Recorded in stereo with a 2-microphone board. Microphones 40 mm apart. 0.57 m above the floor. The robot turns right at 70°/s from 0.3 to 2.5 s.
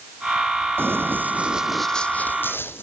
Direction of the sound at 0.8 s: 70° right (ahead or behind).